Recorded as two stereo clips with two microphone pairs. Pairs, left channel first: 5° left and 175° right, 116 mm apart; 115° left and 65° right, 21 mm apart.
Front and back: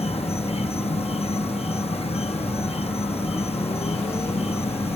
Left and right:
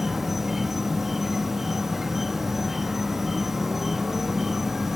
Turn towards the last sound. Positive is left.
turn(degrees=5)